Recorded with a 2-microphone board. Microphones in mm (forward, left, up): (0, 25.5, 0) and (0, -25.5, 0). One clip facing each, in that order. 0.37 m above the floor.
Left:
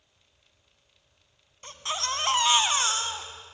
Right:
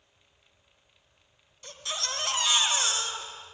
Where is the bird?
No bird in this recording.